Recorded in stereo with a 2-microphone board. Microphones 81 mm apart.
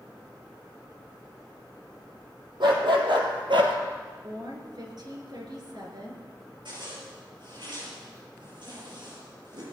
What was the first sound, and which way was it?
A dog barking, 75° right (ahead or behind).